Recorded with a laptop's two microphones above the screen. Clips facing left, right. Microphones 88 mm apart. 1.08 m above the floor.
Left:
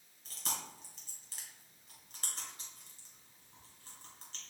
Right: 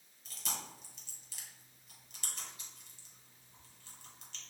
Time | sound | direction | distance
0.2 | chewing | 35° left (ahead or behind) | 1.9 m